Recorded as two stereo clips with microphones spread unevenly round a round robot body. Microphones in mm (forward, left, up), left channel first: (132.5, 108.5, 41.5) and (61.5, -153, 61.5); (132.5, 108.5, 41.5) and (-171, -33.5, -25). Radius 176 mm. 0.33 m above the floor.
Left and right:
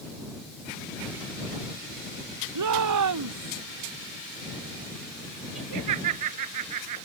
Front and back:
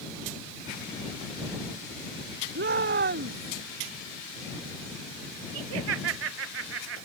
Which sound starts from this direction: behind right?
Laughter, at 5.5 s.